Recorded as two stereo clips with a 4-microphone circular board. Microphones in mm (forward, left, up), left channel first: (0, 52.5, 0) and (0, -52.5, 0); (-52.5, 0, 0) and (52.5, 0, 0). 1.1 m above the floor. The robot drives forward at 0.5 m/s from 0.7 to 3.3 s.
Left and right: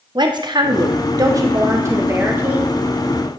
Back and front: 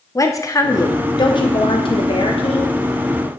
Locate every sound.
0.1 s a woman speaking: 125° right, 0.7 m; by 3.3 s 165° right, 1.8 m